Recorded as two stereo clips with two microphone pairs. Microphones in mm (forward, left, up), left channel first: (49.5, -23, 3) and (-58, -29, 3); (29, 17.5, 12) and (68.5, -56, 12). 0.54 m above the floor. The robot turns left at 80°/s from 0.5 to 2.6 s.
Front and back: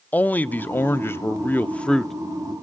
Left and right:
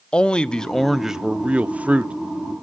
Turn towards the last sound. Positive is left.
turn(degrees=-120)